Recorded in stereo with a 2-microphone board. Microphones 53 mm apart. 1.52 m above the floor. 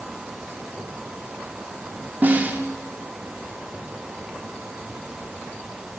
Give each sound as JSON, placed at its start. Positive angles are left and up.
{"t": 2.2, "sound": "a snare drum", "side_deg": -30, "distance_m": 2.5}